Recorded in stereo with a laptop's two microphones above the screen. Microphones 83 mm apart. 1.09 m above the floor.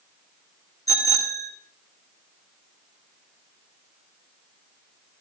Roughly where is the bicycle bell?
Left.